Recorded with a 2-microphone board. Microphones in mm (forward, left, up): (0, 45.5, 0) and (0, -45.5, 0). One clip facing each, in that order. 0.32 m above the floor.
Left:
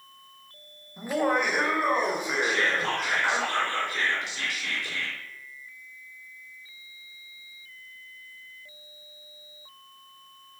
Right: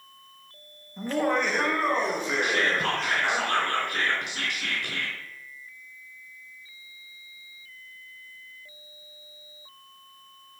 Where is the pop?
I don't hear a pop.